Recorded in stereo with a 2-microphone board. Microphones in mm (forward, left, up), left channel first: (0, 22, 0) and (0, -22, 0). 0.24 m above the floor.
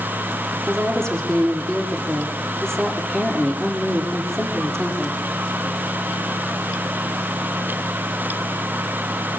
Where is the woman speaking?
15° left (ahead or behind), 8 m.